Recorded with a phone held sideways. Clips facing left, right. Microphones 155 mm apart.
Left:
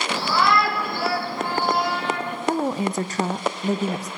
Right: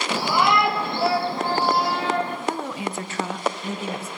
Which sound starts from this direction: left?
A woman speaking, at 2.5 s.